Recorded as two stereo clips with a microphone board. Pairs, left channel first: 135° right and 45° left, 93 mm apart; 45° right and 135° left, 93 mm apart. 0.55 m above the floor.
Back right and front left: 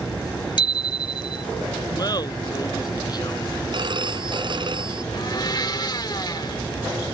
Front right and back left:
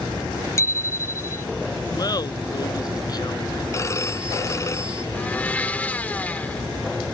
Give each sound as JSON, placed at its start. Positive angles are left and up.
{"t": 0.6, "sound": "a bicycle bell", "azimuth_deg": -100}
{"t": 1.9, "sound": "laughter", "azimuth_deg": -90}
{"t": 3.7, "sound": "a phone ringing", "azimuth_deg": 15}
{"t": 5.1, "sound": "a blender", "azimuth_deg": -115}